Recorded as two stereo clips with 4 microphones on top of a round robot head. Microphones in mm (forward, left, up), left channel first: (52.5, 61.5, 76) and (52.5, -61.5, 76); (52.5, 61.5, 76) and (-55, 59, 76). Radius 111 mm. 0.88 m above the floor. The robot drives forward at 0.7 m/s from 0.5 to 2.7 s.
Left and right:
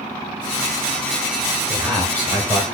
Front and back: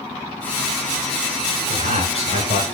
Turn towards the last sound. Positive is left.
turn(degrees=-170)